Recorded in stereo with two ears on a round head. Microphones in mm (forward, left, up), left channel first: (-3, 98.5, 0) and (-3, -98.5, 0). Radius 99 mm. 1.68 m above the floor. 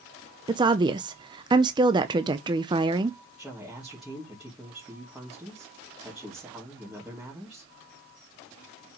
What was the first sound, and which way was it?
A woman speaking, 20° right (ahead or behind).